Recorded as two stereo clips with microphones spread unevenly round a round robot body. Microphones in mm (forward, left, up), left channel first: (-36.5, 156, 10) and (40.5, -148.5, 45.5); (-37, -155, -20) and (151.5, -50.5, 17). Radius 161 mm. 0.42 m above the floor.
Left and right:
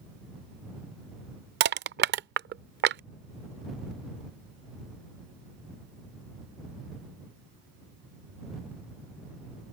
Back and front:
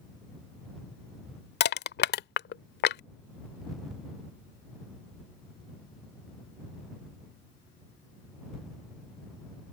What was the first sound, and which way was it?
Crushing, 135° right.